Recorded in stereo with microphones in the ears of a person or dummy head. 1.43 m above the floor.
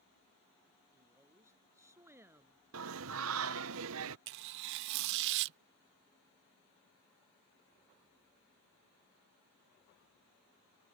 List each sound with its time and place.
0.9 s a woman speaking: 10° right (ahead or behind)
2.7 s singing: 75° right (ahead or behind)
4.3 s tearing paper: 65° right (ahead or behind)